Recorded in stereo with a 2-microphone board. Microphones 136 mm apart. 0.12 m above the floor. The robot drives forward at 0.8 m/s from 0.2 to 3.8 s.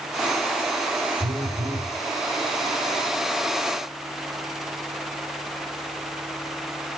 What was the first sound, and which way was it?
A phone buzzing, 80° right.